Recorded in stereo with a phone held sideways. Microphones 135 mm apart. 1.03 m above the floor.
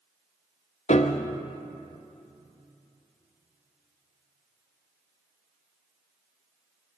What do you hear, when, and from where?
0.9 s a piano: 55° left (ahead or behind), 0.7 m